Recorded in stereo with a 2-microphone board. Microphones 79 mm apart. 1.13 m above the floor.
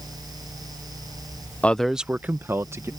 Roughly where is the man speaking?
Centre.